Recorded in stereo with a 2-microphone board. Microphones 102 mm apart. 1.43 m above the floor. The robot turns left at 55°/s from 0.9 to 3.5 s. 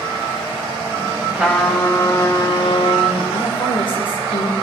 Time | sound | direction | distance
1.3 | a trumpet | 165° right | 8 m
3.3 | a woman speaking | 75° left (ahead or behind) | 7 m